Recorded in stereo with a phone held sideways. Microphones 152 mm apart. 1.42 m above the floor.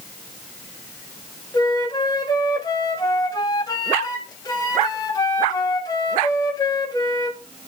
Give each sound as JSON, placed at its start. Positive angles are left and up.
{"t": 1.5, "sound": "a flute", "side_deg": 25, "distance_m": 3.0}